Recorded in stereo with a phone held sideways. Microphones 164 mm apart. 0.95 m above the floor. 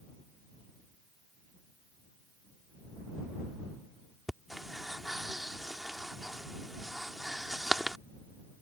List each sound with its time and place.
4.3 s breathing: centre (ahead or behind)